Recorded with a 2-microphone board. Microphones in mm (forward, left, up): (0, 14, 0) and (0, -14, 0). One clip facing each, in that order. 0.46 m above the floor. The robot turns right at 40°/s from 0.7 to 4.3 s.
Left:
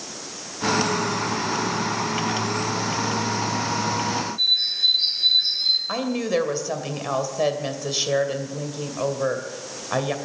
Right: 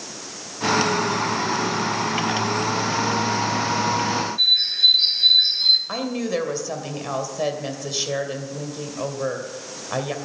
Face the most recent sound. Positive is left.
turn(degrees=10)  # may be behind; listen again after turning